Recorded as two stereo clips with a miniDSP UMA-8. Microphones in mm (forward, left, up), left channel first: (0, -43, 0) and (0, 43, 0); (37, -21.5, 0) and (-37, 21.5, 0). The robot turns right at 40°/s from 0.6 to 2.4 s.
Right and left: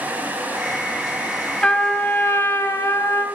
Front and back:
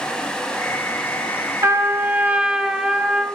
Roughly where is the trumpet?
Behind.